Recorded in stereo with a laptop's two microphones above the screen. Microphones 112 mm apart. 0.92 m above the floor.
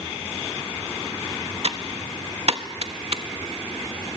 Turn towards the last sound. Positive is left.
turn(degrees=-60)  # may be behind; listen again after turning